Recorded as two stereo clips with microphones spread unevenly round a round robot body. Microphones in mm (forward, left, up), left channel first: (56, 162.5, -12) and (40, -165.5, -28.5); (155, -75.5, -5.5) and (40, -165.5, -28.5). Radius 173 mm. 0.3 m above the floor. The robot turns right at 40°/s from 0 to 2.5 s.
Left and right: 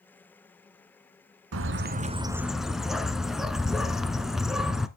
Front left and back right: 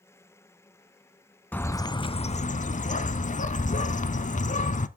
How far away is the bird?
About 0.8 m.